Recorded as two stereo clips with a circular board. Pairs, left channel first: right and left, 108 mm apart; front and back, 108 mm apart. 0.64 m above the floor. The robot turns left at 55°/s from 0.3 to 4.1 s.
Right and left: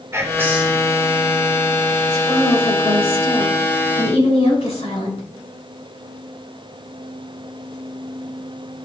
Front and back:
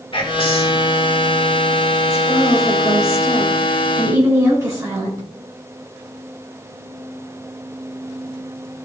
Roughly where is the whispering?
Ahead left.